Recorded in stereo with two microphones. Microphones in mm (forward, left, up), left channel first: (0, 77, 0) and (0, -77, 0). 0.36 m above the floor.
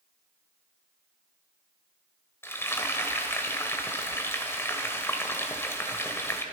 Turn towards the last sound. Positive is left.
turn(degrees=15)  # may be behind; listen again after turning